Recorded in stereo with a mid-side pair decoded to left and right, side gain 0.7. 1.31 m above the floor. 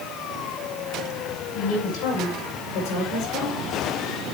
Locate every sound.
1.5 s a woman speaking: 60° left, 7.5 m; by 3.6 s 50° left, 5.5 m